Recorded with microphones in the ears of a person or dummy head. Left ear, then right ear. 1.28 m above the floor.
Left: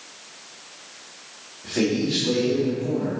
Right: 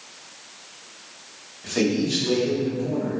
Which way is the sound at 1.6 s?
55° right (ahead or behind).